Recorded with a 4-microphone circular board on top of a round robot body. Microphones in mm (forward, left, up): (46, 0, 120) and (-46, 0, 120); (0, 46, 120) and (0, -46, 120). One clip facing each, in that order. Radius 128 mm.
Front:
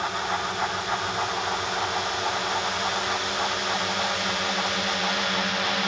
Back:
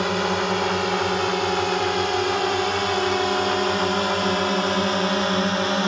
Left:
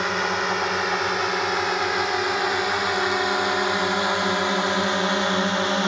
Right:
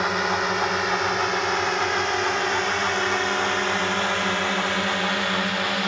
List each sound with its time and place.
0.0 s a drone: straight behind; by 5.9 s 140° left